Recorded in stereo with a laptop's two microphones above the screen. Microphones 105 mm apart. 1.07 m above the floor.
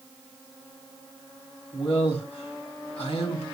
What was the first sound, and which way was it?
A man speaking, 65° left (ahead or behind).